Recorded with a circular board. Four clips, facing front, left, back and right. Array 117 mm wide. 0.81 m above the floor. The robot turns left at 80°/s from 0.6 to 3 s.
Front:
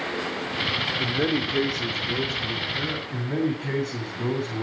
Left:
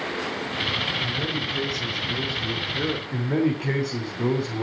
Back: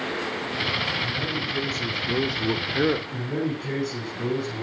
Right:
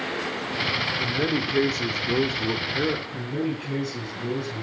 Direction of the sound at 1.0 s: 20° right.